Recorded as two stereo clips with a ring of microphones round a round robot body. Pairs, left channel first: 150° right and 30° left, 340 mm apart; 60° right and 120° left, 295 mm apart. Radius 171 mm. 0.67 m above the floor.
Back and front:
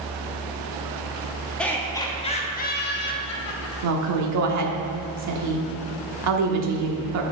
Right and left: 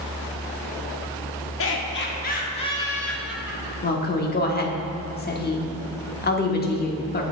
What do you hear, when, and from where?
1.6 s laughter: 65° right, 1.3 m; by 4.1 s 175° right, 1.4 m
3.8 s a woman speaking: 5° right, 1.2 m